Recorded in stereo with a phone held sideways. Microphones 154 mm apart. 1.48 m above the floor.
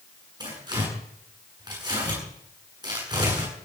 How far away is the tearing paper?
About 9.5 m.